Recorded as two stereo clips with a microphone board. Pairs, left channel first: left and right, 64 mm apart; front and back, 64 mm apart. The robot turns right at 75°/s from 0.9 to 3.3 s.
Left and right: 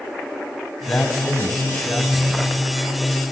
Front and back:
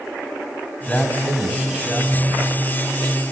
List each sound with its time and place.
0.9 s a man speaking: 50° left, 1.7 m; by 2.6 s straight behind, 1.7 m